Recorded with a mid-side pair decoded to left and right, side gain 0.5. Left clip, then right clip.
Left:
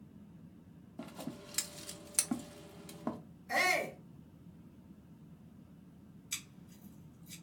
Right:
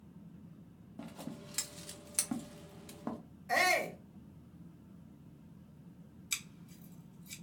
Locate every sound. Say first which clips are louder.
1.0 s scissors: left 1 dB; 15° left, 0.6 m
3.5 s a shout: right 1 dB; 35° right, 1.3 m
6.3 s scissors: right 4 dB; 50° right, 1.3 m